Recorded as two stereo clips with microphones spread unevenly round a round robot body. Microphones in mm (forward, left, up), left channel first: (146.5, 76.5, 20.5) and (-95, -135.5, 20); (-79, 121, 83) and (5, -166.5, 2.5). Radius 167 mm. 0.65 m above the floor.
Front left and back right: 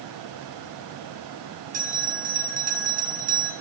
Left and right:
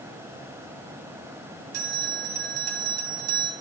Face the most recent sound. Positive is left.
turn(degrees=-75)